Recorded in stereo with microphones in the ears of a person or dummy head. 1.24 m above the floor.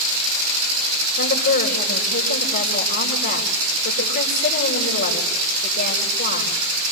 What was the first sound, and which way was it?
A woman speaking, 45° left (ahead or behind).